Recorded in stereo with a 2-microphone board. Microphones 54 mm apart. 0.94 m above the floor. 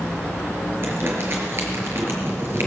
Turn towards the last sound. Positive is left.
turn(degrees=-50)  # may be behind; listen again after turning